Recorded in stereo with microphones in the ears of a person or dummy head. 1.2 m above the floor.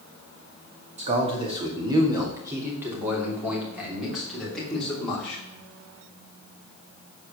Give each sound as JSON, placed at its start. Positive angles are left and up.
{"t": 1.0, "sound": "a man speaking", "side_deg": -35, "distance_m": 2.0}